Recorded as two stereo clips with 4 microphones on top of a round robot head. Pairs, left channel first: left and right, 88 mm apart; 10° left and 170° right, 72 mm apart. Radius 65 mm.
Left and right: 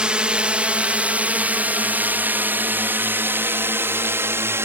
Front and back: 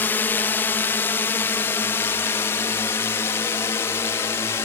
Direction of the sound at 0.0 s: 25° right.